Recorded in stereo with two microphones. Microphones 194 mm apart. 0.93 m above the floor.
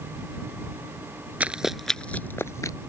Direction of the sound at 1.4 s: 10° right (ahead or behind).